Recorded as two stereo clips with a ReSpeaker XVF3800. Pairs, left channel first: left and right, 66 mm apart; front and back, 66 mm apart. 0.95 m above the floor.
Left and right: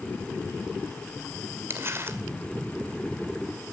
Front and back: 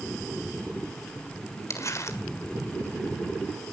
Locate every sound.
1.7 s crumpling: 40° right, 2 m